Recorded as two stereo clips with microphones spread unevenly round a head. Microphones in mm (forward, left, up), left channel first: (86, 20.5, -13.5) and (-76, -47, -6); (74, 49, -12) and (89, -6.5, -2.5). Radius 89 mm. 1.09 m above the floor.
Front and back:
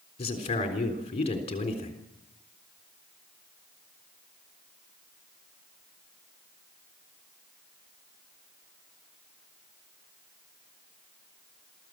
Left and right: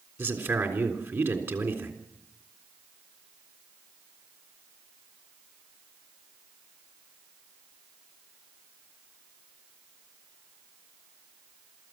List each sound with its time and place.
0.2 s a man speaking: 35° right, 3.5 m